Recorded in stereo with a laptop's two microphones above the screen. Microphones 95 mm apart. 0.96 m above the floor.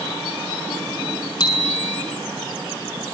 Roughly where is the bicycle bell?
Left.